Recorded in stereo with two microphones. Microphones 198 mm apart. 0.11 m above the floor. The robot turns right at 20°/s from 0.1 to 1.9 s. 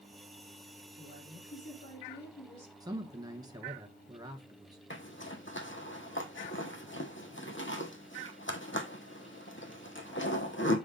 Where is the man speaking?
20° right (ahead or behind), 1.1 m.